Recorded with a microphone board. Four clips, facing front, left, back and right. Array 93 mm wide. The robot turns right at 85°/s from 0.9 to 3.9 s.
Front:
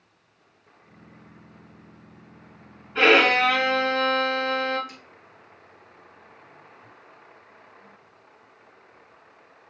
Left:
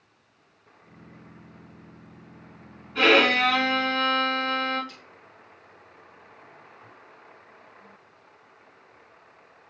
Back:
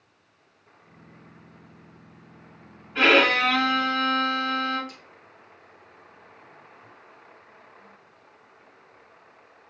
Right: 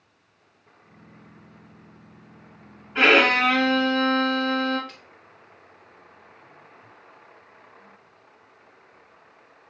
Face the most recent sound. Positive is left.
turn(degrees=-65)